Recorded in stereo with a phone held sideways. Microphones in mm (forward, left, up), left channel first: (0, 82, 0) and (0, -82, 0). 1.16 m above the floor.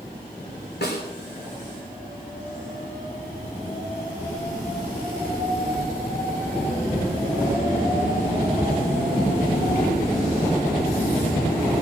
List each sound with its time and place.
0.8 s a snare drum: 75° left (ahead or behind), 3.5 m